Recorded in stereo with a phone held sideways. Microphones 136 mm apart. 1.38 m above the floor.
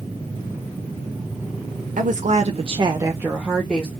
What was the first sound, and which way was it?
A woman speaking, 70° right (ahead or behind).